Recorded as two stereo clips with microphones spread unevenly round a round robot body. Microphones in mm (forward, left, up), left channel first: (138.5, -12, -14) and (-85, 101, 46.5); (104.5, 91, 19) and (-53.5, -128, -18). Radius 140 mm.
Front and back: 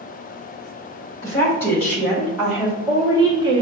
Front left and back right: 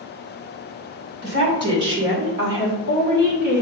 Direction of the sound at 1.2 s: 95° right.